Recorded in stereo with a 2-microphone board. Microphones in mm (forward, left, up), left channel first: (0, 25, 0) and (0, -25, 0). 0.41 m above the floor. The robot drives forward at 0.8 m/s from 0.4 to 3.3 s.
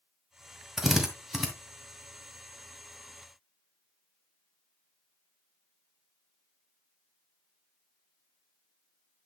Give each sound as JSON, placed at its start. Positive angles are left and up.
{"t": 0.8, "sound": "a drill", "side_deg": -10, "distance_m": 1.5}